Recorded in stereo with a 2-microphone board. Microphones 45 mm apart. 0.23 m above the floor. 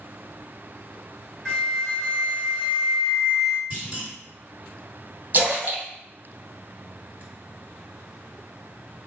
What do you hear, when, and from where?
1.4 s a flute: 10° left (ahead or behind), 1.5 m
3.7 s a clunk: 25° right (ahead or behind), 2.0 m
5.3 s a splash: 40° right (ahead or behind), 1.0 m